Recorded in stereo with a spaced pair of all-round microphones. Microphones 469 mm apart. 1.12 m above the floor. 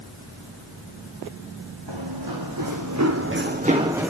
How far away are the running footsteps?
About 2.5 m.